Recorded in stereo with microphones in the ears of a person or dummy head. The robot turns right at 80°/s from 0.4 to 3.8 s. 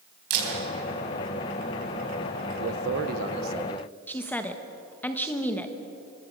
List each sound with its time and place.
0.3 s a camera shutter: 60° right (ahead or behind), 4.5 m; by 0.5 s 55° right (ahead or behind), 4.5 m
2.6 s a man speaking: 95° right, 1.3 m; by 4.0 s straight ahead, 1.3 m
4.1 s a woman speaking: 5° left (ahead or behind), 1.3 m